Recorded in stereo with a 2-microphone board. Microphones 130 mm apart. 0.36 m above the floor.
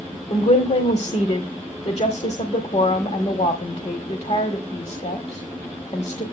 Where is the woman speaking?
55° left (ahead or behind), 1.4 m.